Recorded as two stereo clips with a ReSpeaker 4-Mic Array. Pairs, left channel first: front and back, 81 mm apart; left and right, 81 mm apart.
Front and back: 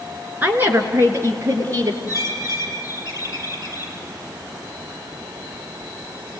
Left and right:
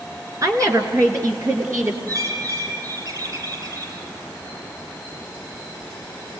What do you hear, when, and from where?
0.4 s a woman speaking: 120° right, 2.5 m; by 2.0 s 140° right, 3.5 m
2.1 s a bird: 45° right, 4 m